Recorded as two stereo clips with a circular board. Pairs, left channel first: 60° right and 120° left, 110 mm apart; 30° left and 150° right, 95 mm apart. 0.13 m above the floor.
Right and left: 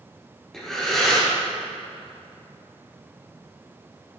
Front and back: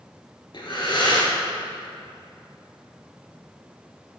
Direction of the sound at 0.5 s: 25° left.